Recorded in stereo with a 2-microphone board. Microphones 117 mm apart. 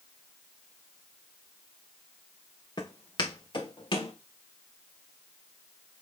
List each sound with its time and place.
2.8 s footsteps: 40° left (ahead or behind), 1.7 m; by 4.1 s 45° left (ahead or behind), 2.5 m